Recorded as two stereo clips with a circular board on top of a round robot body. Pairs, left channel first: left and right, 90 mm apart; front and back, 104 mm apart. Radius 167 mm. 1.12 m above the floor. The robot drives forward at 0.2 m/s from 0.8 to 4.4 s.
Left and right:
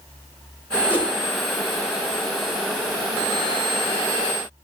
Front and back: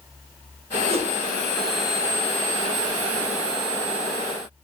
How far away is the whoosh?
About 4 m.